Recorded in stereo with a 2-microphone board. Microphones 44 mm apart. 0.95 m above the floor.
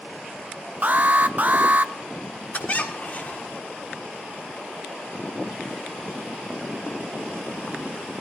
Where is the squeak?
40° left (ahead or behind), 1.7 m.